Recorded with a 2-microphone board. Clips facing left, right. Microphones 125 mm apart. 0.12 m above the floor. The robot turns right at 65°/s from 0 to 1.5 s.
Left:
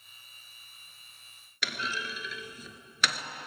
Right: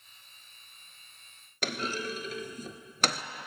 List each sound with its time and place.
1.6 s a clunk: 45° right (ahead or behind), 0.5 m